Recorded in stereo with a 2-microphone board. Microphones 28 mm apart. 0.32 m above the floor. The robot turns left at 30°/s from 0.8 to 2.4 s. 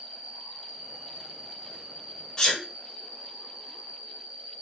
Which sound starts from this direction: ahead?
An insect, at 0.0 s.